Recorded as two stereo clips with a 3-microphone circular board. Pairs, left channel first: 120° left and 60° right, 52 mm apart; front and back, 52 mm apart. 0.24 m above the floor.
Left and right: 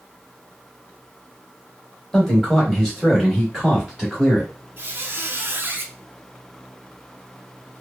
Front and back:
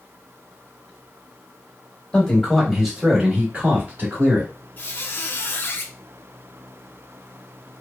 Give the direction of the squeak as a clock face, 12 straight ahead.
1 o'clock.